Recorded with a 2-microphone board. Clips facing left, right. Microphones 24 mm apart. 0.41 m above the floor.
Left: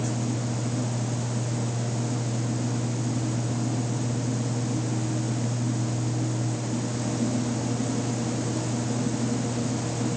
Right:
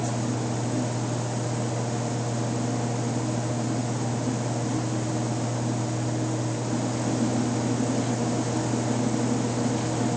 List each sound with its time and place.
Only background noise.